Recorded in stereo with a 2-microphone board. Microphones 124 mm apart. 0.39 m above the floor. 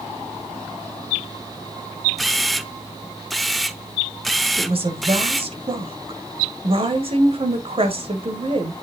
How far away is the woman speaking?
About 1.6 m.